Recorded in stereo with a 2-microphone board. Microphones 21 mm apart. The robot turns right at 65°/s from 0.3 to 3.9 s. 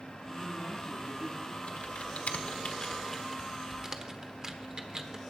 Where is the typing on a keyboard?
65° left (ahead or behind), 1.1 m; by 5.2 s 30° right (ahead or behind), 1.1 m.